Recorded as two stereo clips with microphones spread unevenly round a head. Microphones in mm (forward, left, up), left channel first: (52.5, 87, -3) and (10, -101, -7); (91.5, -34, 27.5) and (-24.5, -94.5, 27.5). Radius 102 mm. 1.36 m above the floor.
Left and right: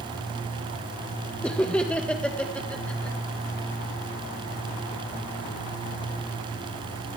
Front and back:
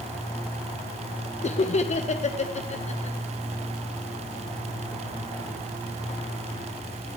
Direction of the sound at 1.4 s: 5° right.